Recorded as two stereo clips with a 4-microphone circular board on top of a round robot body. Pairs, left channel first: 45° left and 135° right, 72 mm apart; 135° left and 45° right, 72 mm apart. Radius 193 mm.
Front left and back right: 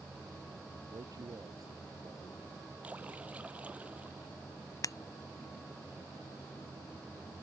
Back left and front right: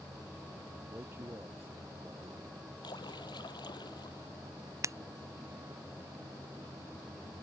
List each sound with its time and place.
0.9 s a man speaking: 100° right
2.8 s a splash: 155° left
4.8 s breaking glass: 5° left